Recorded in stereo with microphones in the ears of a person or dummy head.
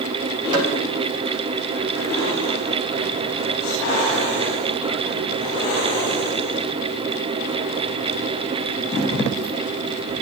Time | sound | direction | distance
0.5 | tapping | 30° right (ahead or behind) | 7 m